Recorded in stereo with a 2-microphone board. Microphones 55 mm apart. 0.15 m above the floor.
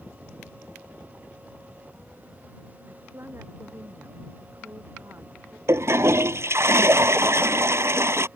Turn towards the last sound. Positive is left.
turn(degrees=-55)  # may be behind; listen again after turning